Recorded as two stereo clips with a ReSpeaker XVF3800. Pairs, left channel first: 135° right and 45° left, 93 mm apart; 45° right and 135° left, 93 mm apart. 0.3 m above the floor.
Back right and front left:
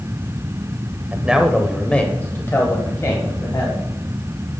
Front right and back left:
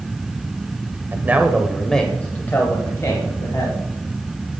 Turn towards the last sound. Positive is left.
turn(degrees=-90)